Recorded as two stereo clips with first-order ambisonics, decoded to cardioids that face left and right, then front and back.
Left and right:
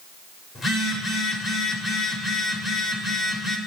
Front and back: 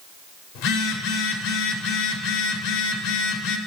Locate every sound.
0.6 s a phone buzzing: 20° left, 0.9 m